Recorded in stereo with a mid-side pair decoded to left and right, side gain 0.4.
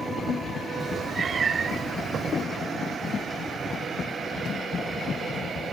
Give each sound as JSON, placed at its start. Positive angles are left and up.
{"t": 0.8, "sound": "a cat meowing", "azimuth_deg": -50}